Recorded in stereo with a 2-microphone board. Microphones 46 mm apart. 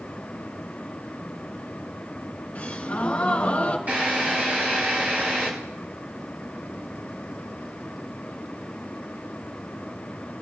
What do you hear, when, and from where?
2.5 s a gasp: 35° left (ahead or behind), 2 m
3.9 s a drill: 40° right (ahead or behind), 8.5 m